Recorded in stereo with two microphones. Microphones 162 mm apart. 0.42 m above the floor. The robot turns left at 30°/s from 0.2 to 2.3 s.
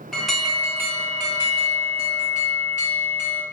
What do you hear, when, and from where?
0.1 s an alarm: straight ahead, 1.1 m; by 3.4 s 60° right, 1.1 m